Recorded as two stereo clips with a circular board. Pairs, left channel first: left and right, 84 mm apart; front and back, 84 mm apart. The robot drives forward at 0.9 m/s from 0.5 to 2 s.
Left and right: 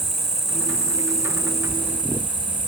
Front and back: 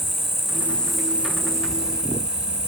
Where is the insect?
50° left, 0.9 m; by 2.7 s 155° left, 1.2 m.